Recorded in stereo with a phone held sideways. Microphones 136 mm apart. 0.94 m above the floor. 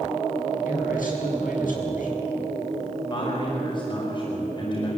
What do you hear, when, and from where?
0.7 s a man speaking: 85° left, 8 m; by 2.1 s 80° left, 7.5 m
3.1 s a man speaking: 35° left (ahead or behind), 5.5 m